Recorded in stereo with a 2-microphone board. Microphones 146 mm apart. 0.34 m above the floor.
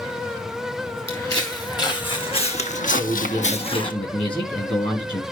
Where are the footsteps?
25° left (ahead or behind), 3 m; by 3.9 s 30° left (ahead or behind), 1.3 m.